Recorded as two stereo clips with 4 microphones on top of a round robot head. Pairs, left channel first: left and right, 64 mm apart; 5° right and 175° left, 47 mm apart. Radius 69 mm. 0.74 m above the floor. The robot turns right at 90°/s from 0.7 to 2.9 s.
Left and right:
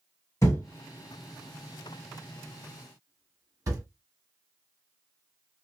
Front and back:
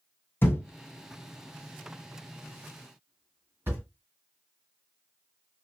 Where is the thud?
35° left, 1.5 m; by 3.8 s 125° right, 1.5 m.